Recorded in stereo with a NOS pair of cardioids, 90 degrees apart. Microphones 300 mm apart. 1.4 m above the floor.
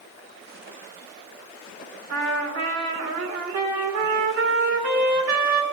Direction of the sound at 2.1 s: 60° right.